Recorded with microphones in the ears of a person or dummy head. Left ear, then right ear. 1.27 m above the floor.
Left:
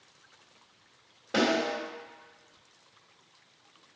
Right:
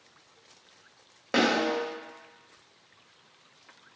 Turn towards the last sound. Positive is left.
turn(degrees=-55)  # may be behind; listen again after turning